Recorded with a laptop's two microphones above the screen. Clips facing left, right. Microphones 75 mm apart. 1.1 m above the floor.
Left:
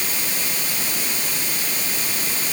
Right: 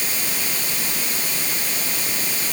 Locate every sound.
Only background noise.